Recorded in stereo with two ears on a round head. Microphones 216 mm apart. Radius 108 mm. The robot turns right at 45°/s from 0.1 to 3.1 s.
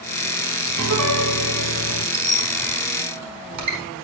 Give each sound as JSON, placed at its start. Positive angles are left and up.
{"t": 0.8, "sound": "a piano", "azimuth_deg": -105, "distance_m": 1.7}
{"t": 2.1, "sound": "a squeak", "side_deg": -45, "distance_m": 4.5}